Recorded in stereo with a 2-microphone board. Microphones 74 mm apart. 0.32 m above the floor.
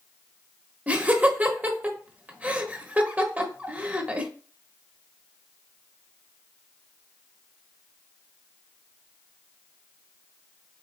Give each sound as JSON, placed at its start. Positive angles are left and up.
{"t": 0.9, "sound": "laughter", "side_deg": -20, "distance_m": 1.0}